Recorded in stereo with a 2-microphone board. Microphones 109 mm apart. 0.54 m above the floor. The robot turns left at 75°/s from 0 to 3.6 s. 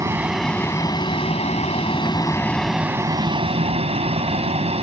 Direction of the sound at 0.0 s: 30° right (ahead or behind).